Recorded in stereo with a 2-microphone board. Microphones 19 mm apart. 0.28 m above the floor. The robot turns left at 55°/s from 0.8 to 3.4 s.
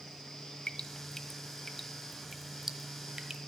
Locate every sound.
0.7 s dripping: 45° left (ahead or behind), 1.1 m; by 3.4 s 40° right (ahead or behind), 1.1 m